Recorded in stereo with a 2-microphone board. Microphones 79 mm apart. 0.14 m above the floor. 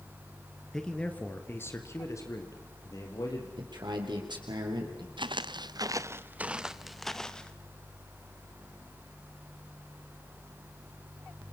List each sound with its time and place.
0.7 s a man speaking: 5° left (ahead or behind), 2 m; by 3.5 s 50° left (ahead or behind), 5 m
3.6 s a man speaking: 70° right (ahead or behind), 5 m
5.2 s footsteps: 85° right, 0.9 m; by 7.5 s 10° left (ahead or behind), 1.6 m